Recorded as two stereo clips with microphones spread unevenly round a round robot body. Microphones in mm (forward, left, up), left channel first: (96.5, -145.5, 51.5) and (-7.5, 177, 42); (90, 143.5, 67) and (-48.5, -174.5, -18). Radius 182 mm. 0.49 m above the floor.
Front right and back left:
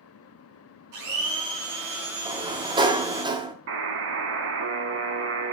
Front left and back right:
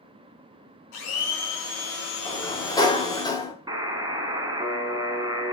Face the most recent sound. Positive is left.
turn(degrees=160)